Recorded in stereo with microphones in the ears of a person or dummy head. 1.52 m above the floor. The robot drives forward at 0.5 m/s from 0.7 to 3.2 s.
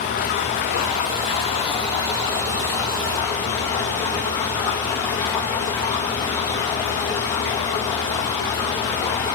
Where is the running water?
45° left (ahead or behind), 0.8 m; by 9.4 s 15° left (ahead or behind), 1.9 m.